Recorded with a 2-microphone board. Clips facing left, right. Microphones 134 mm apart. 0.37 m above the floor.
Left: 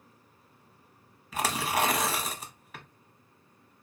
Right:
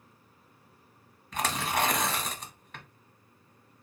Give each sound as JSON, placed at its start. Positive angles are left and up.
{"t": 1.3, "sound": "tearing paper", "side_deg": 5, "distance_m": 0.8}